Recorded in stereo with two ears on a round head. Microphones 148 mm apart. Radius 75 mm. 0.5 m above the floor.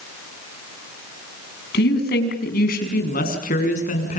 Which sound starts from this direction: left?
A woman speaking, at 1.7 s.